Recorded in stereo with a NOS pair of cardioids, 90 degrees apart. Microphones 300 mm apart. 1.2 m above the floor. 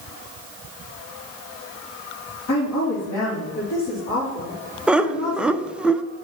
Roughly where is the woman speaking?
Ahead left.